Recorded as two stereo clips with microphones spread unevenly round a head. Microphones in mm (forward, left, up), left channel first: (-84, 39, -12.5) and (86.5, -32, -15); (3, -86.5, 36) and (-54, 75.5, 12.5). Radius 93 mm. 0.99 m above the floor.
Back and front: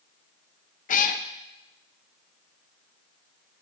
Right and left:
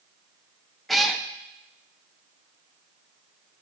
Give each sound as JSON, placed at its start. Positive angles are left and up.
{"t": 0.9, "sound": "a cat meowing", "azimuth_deg": -160, "distance_m": 0.5}